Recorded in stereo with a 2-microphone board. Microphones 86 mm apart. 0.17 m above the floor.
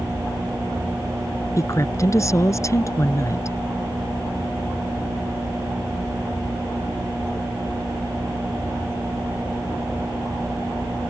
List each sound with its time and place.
1.6 s a woman speaking: 35° left (ahead or behind)